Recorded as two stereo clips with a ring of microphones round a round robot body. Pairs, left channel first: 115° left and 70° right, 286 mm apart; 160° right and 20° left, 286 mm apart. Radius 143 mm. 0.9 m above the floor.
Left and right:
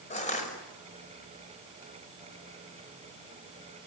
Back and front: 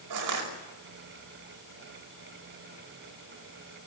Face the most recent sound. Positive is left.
turn(degrees=45)